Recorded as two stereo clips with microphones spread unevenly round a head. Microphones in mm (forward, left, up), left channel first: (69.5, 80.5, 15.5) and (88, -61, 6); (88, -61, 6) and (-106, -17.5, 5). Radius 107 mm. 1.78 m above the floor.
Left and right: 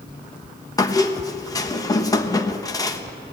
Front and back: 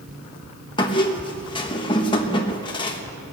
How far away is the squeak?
About 1.2 m.